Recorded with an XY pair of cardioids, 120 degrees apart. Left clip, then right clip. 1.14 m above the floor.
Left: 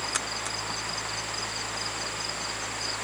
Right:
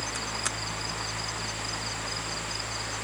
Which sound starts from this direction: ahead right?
A fan, at 0.0 s.